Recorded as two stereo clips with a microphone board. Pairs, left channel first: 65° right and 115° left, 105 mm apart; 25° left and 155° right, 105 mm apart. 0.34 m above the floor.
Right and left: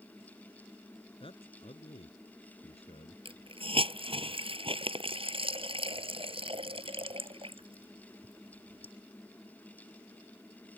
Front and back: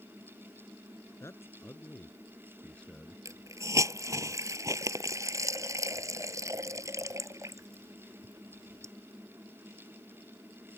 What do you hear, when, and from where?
1.2 s a man speaking: 40° right; by 3.1 s 60° right
3.2 s a hiss: 140° left